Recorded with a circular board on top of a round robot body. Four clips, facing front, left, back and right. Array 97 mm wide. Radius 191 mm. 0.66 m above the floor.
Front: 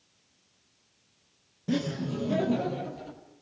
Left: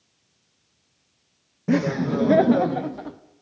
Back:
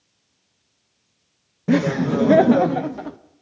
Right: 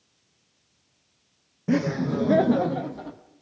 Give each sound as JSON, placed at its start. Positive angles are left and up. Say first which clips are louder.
{"t": 1.7, "sound": "laughter", "louder": "left 2 dB, back 11 dB", "azimuth_deg": 170, "distance_m": 0.7}